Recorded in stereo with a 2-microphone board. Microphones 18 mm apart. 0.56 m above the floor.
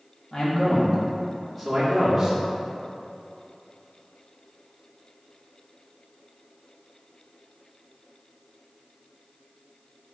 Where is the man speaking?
40° left (ahead or behind), 1.0 m; by 2.4 s 25° right (ahead or behind), 1.0 m.